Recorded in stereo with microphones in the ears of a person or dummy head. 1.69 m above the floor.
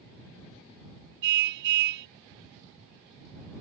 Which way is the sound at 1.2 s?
65° right (ahead or behind).